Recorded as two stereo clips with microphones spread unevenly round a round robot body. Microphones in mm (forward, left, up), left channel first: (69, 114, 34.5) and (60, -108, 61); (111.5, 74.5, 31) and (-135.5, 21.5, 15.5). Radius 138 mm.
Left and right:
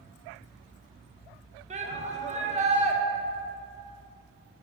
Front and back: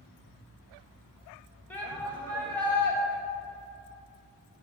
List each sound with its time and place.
1.7 s a shout: 70° right, 0.9 m